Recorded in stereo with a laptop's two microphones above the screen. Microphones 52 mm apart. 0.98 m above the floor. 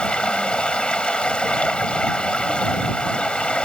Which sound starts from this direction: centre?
Running water, at 0.0 s.